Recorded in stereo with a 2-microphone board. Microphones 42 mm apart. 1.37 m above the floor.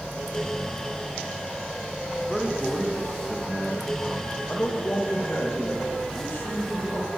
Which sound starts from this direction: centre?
A man speaking, at 2.3 s.